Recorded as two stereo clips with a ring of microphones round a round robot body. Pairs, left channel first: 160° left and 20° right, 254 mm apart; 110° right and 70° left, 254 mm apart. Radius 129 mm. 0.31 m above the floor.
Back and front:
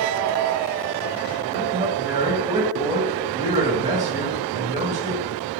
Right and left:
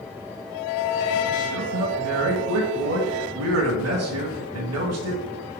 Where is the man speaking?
55° left, 2.5 m.